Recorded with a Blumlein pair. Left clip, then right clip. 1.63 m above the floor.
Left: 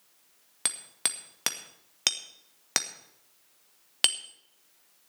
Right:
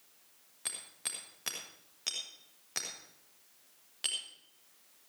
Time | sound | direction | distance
0.7 | hammering | 55° left | 2 m